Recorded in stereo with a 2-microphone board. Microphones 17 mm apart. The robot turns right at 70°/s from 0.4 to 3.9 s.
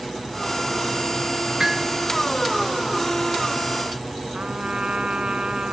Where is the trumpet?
80° right.